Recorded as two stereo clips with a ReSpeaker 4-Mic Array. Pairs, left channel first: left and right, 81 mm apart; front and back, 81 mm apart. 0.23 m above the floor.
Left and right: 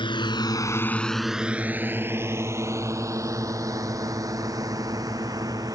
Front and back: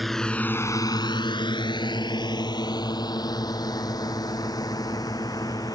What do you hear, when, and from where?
0.0 s a drone: 90° left; by 5.8 s 45° right